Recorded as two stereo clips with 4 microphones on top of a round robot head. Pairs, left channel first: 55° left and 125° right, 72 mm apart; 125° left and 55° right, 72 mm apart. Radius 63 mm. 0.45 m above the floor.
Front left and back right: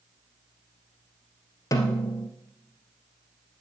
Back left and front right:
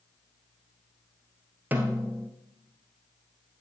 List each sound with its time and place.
1.7 s a snare drum: 10° left, 1.6 m